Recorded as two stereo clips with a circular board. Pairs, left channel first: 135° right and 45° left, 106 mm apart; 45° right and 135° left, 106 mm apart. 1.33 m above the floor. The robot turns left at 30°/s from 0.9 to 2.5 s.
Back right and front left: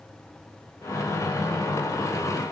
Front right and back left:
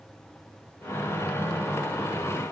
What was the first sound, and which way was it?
Only background noise.